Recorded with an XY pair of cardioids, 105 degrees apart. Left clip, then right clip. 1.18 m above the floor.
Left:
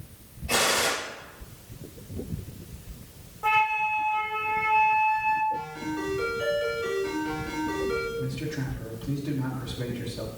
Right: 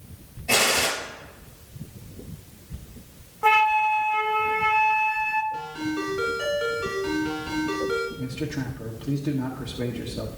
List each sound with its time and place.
0.5 s a gunshot: 60° right, 5 m
3.4 s a flute: 55° right, 0.9 m
5.5 s a ringtone: 65° right, 5 m
8.2 s a man speaking: 70° right, 1.7 m